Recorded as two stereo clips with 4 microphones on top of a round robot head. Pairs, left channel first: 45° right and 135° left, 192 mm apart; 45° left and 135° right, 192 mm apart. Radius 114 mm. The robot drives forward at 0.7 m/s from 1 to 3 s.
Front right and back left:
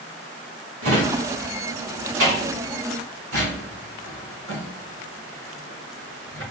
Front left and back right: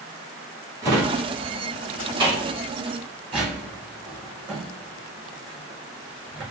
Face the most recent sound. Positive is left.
turn(degrees=160)